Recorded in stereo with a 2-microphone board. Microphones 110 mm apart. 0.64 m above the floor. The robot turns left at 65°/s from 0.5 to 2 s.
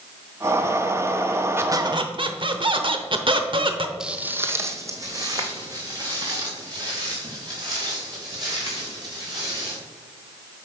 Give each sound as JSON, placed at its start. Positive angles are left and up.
{"t": 1.6, "sound": "a squeak", "side_deg": -20, "distance_m": 0.9}
{"t": 4.0, "sound": "footsteps", "side_deg": -5, "distance_m": 0.8}